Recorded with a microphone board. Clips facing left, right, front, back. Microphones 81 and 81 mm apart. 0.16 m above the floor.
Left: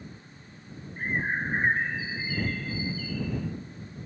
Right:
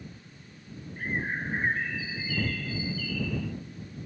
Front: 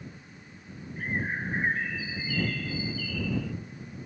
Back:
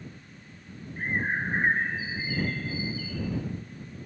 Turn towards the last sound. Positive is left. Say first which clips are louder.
# left 3 dB, back 3 dB
turn(degrees=140)